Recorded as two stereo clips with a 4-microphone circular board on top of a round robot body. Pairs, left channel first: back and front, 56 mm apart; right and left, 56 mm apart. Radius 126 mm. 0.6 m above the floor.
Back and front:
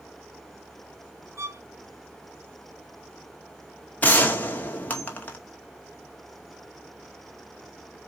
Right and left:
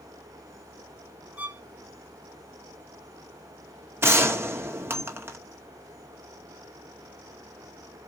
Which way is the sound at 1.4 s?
30° left.